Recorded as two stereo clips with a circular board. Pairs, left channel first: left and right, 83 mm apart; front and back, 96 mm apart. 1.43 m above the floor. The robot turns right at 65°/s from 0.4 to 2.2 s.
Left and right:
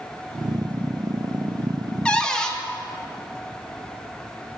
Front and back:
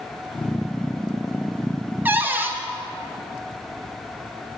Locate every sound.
2.0 s a cupboard door: 145° left, 0.7 m; by 2.6 s 155° left, 0.7 m